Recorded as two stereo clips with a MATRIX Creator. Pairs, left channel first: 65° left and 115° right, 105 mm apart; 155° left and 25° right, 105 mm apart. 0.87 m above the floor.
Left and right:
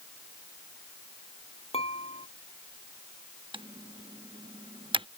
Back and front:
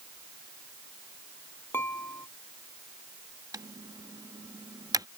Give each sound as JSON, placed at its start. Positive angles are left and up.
{"t": 1.7, "sound": "dishes clattering", "azimuth_deg": 90}
{"t": 3.5, "sound": "typing on a keyboard", "azimuth_deg": -75}